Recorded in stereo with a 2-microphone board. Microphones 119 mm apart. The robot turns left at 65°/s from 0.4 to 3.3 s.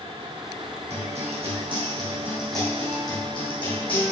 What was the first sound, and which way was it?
A guitar, 75° right.